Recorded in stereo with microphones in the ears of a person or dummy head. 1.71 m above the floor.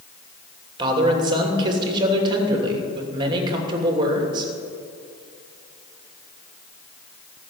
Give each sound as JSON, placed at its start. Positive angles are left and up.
{"t": 0.8, "sound": "a man speaking", "side_deg": -25, "distance_m": 2.5}